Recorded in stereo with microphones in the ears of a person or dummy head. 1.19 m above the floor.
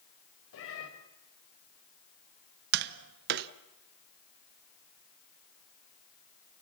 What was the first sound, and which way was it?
A cat meowing, 75° left (ahead or behind).